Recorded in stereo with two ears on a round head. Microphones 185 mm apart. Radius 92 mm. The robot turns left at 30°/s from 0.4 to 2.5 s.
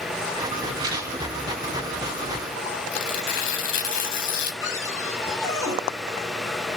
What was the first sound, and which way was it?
A rattle, 25° right (ahead or behind).